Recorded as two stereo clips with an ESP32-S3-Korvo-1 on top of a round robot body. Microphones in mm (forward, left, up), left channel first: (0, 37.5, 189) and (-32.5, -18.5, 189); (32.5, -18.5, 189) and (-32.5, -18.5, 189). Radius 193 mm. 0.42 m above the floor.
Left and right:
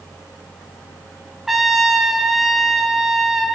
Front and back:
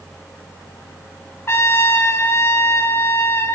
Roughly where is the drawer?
I don't hear a drawer.